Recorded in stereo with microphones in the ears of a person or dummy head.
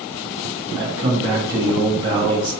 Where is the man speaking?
25° right (ahead or behind), 1.7 m.